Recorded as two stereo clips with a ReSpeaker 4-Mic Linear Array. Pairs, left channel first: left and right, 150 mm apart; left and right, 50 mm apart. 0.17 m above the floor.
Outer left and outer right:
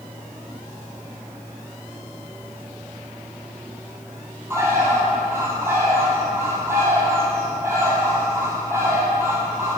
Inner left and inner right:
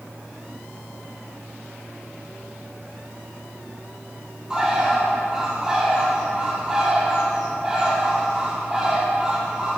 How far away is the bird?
About 1.7 m.